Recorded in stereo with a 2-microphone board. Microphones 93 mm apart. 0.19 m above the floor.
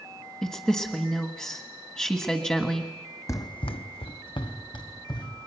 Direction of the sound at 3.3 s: 35° left (ahead or behind).